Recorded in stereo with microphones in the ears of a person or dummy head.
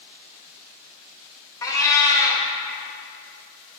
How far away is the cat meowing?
About 1.0 m.